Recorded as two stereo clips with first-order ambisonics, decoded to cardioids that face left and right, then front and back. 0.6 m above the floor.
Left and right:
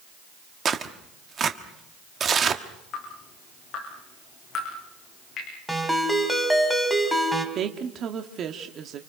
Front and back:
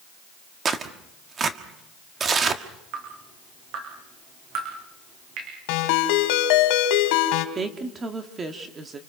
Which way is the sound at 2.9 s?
145° left.